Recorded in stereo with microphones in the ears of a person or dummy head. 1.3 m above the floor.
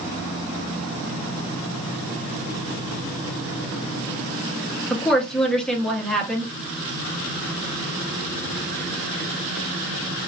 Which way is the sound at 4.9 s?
Centre (ahead or behind).